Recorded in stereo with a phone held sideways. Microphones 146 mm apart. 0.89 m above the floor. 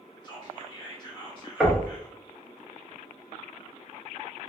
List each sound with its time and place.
0.2 s whispering: 30° left (ahead or behind), 1.3 m
1.6 s knocking: centre (ahead or behind), 1.0 m